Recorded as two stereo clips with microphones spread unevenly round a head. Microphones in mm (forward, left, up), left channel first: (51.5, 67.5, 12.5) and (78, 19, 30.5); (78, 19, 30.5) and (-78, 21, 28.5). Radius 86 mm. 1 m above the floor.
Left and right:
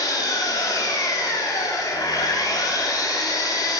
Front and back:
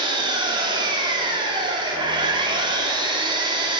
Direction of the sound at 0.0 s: 120° left.